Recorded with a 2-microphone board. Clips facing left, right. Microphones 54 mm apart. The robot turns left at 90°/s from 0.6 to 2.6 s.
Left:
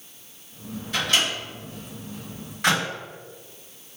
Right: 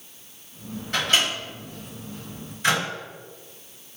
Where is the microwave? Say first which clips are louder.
Right 1 dB; 50° right (ahead or behind), 1.8 m; by 2.8 s 80° left, 1.8 m.